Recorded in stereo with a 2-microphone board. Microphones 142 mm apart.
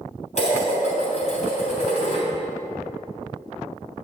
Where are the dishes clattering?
55° left (ahead or behind), 3 m.